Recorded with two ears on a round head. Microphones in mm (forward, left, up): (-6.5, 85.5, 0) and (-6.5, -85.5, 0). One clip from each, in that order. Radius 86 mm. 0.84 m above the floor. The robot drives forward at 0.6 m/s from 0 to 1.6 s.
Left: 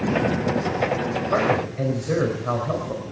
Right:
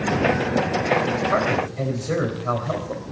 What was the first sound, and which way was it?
A man speaking, 25° right (ahead or behind).